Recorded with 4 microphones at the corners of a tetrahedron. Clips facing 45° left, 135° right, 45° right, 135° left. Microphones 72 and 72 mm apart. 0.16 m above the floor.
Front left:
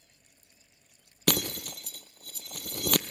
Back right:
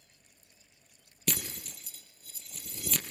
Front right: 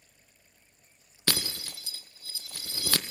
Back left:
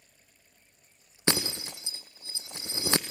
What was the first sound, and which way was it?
Breaking glass, 65° left.